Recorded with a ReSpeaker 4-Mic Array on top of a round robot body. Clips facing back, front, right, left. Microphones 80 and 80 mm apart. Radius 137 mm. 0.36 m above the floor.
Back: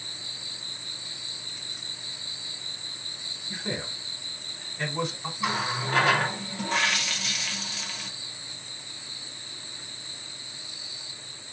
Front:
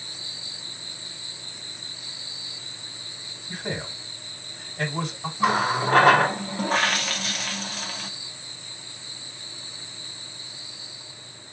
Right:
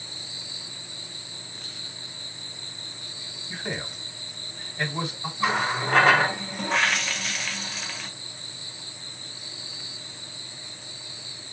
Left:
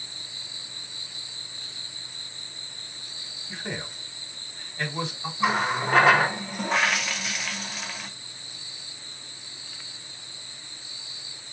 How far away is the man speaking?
About 2 m.